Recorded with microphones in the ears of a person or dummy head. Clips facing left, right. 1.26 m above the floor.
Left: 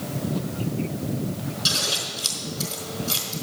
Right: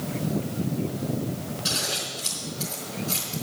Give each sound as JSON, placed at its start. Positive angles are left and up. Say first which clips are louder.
{"t": 1.6, "sound": "scissors", "louder": "left 1 dB", "side_deg": 50, "distance_m": 4.0}